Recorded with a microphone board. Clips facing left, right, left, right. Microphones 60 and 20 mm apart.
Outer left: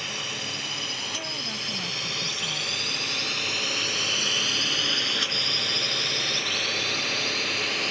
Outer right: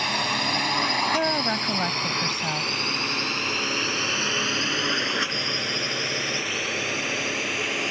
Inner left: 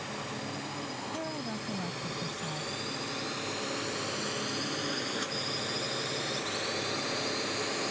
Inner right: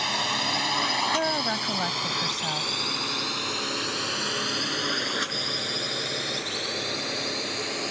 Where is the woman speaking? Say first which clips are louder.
Outer right 11 dB, inner right 11 dB; 60° right (ahead or behind).